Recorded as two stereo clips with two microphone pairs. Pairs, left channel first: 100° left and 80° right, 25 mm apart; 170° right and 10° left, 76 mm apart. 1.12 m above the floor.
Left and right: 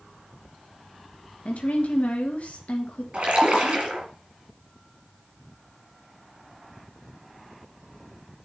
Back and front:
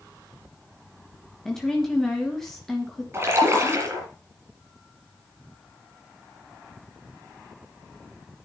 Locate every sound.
1.4 s a woman speaking: 105° left, 1.6 m
3.1 s a splash: 45° right, 4.5 m